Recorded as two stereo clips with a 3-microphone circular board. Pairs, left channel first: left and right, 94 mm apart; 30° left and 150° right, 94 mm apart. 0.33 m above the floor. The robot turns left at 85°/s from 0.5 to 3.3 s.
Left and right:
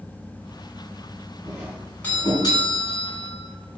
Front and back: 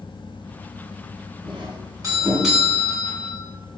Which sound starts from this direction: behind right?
A doorbell, at 1.4 s.